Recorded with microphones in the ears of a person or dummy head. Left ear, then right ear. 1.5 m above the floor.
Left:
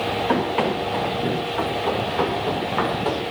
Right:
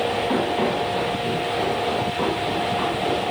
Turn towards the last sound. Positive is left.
turn(degrees=45)  # may be behind; listen again after turning